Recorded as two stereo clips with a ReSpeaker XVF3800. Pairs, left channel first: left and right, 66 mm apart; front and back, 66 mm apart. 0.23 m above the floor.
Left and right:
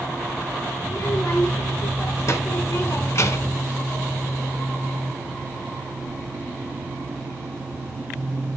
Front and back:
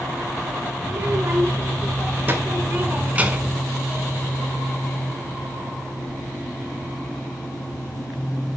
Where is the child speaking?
130° left, 3 m; by 3.6 s 110° left, 1.1 m.